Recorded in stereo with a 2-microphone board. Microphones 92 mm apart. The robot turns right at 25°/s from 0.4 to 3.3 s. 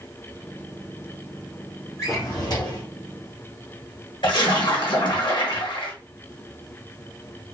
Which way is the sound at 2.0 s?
35° left (ahead or behind).